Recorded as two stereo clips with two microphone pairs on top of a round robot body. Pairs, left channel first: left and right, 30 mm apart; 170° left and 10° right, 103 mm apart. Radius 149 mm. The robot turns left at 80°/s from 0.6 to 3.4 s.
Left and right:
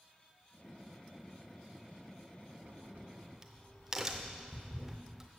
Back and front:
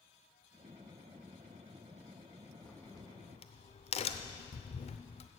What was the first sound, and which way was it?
A crack, 105° right.